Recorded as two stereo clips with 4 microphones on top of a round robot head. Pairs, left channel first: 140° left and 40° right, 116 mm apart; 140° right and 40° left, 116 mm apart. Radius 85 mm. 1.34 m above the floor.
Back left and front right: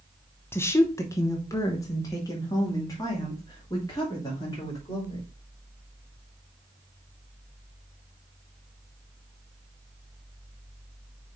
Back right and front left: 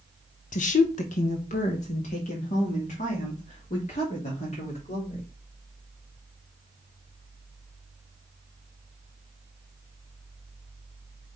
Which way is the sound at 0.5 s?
150° right.